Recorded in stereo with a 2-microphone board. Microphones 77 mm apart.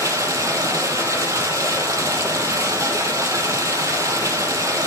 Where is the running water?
45° right (ahead or behind), 6 m.